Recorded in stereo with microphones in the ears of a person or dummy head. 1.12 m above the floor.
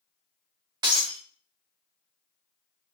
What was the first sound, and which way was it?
Breaking glass, 20° right (ahead or behind).